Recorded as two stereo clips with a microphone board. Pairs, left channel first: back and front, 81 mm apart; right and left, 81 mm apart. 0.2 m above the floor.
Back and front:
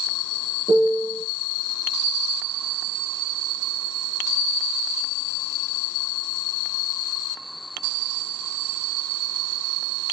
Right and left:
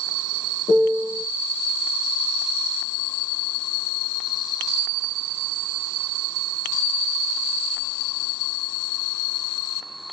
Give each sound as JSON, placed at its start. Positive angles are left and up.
{"t": 0.7, "sound": "a piano", "azimuth_deg": 20, "distance_m": 1.2}